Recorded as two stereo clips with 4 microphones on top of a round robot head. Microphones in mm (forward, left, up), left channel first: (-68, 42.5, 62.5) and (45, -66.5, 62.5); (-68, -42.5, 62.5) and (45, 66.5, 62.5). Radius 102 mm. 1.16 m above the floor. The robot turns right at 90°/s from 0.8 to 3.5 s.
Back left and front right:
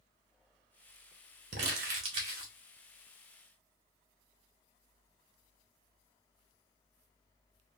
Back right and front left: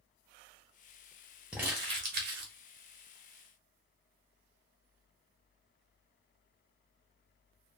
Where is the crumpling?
40° right, 0.7 m; by 2.5 s 50° left, 0.7 m.